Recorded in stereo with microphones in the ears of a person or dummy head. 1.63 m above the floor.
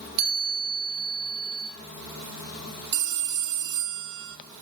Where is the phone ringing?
45° right (ahead or behind), 0.7 m.